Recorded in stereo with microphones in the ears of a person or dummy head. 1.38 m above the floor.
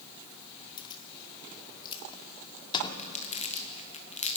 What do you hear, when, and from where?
0.8 s keys jangling: 25° left (ahead or behind), 2 m
3.0 s crumpling: 40° left (ahead or behind), 1.5 m